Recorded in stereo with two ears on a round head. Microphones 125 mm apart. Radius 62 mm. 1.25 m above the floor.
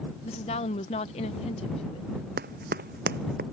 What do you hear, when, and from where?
0.2 s a woman speaking: 45° left (ahead or behind)
2.4 s running footsteps: 70° right (ahead or behind); by 3.4 s 75° right (ahead or behind)